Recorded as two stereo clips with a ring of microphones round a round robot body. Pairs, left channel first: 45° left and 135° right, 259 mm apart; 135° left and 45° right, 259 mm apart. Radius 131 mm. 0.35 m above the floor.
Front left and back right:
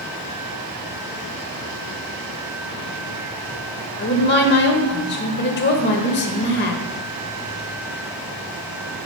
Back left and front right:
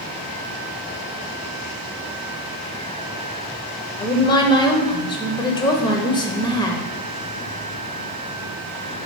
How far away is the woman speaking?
About 1.1 m.